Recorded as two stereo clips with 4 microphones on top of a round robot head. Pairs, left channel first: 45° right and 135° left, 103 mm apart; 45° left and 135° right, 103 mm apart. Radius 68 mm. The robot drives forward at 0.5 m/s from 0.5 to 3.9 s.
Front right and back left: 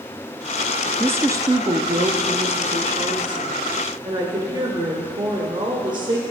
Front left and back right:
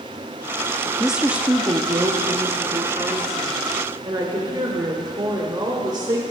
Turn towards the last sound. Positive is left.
turn(degrees=175)